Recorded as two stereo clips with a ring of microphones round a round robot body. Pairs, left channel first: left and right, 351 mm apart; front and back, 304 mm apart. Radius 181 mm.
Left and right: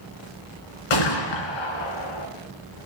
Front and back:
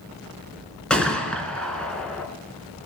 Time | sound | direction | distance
0.9 | a gunshot | 85° left | 2.5 m